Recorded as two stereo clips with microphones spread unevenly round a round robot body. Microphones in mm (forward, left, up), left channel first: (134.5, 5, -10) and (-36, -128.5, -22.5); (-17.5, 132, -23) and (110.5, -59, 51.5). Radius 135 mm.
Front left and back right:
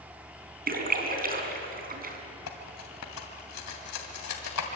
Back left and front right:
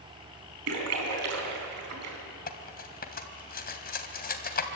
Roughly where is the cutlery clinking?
Left.